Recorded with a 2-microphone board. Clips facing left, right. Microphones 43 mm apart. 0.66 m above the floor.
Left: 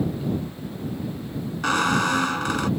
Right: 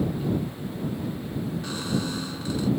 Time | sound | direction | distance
1.6 | a squeak | 80° left | ?